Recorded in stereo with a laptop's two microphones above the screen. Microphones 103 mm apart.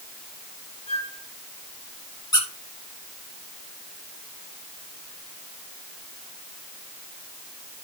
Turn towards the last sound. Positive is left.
turn(degrees=40)  # may be behind; listen again after turning